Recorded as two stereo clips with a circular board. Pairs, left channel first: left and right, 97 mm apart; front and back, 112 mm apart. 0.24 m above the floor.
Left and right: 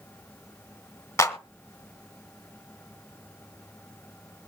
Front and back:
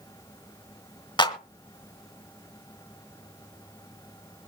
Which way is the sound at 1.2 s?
35° left.